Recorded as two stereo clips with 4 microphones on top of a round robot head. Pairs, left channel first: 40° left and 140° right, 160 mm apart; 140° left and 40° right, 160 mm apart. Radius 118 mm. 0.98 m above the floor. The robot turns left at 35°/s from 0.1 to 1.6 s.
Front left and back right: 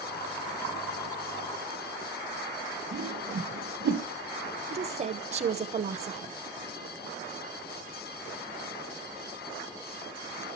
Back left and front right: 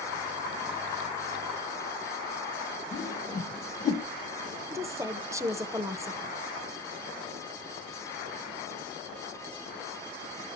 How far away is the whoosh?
About 0.9 m.